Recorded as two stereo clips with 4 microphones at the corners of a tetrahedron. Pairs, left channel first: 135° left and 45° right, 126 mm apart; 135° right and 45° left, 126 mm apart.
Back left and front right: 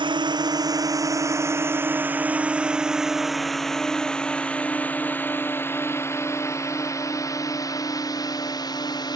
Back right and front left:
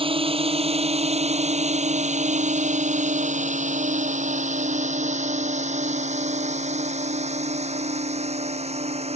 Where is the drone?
5° left; by 9.2 s 80° left.